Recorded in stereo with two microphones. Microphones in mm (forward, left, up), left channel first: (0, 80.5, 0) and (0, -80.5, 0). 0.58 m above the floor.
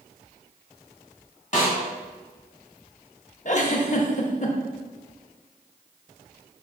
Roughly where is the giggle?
Left.